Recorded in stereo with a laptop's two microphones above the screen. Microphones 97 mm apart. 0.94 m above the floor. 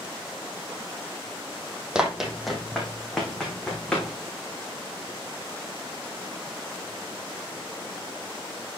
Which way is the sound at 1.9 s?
10° right (ahead or behind).